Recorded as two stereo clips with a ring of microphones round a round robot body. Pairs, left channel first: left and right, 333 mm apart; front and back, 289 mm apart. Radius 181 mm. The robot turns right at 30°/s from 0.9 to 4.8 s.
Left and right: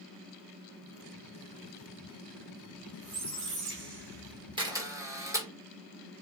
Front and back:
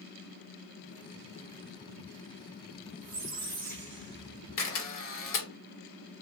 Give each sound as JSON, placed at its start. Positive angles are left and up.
{"t": 3.0, "sound": "a squeak", "azimuth_deg": -135, "distance_m": 1.4}
{"t": 4.6, "sound": "a camera shutter", "azimuth_deg": -20, "distance_m": 1.1}